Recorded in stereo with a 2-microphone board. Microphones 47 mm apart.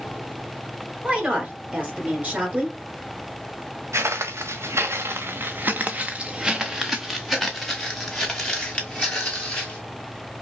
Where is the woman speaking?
30° right (ahead or behind), 1.8 m.